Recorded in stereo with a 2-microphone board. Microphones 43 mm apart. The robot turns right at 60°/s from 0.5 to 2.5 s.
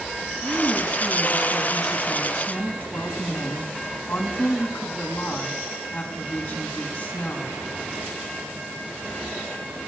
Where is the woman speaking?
95° right, 6.5 m; by 7.5 s 25° left, 6.5 m.